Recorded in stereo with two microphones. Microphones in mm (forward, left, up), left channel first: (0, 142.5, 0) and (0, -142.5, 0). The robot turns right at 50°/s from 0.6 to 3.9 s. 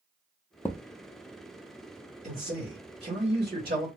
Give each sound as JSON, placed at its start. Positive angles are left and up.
{"t": 0.7, "sound": "a thud", "side_deg": 10, "distance_m": 0.6}
{"t": 2.2, "sound": "a man speaking", "azimuth_deg": -135, "distance_m": 1.5}